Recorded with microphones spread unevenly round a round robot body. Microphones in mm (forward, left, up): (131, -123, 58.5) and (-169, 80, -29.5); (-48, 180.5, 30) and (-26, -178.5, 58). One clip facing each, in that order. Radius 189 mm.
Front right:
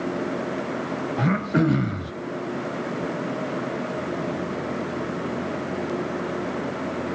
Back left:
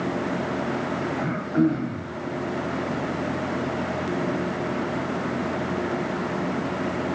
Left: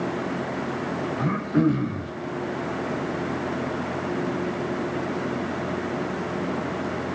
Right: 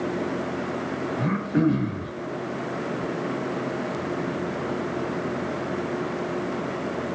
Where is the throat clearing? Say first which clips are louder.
Even, left 1 dB; straight ahead, 1.0 m.